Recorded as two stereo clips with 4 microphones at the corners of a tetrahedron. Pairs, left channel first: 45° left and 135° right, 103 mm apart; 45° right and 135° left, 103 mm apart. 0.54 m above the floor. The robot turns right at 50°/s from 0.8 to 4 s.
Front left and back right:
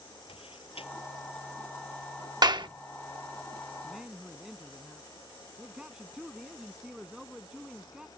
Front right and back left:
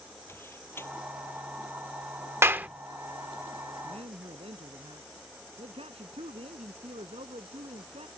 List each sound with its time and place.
0.3 s a door slam: 25° left; by 2.8 s 125° left
2.4 s a clap: 165° right; by 2.7 s 155° right
3.8 s a man speaking: 135° left; by 8.1 s 140° left